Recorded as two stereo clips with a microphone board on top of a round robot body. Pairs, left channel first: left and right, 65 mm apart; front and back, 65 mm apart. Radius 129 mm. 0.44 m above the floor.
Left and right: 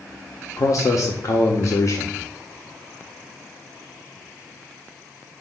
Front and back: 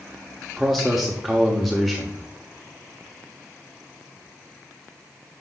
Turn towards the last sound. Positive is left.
turn(degrees=90)